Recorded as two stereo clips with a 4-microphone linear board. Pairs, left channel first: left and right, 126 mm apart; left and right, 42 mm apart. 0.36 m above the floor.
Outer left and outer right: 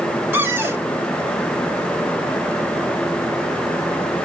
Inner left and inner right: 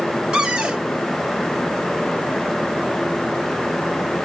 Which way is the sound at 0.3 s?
20° right (ahead or behind).